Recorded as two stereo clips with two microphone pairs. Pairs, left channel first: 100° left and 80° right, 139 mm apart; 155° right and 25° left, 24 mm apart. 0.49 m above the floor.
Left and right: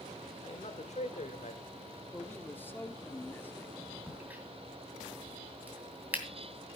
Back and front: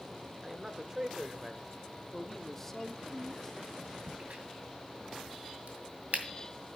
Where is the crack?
Straight ahead, 2.5 m.